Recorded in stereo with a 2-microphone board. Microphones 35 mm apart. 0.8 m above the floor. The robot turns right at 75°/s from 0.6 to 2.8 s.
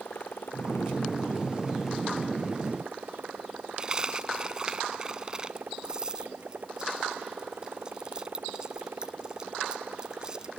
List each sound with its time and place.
0.0 s a motorcycle: 75° left; by 10.6 s 120° right
3.8 s a dropped coin: 20° right (ahead or behind)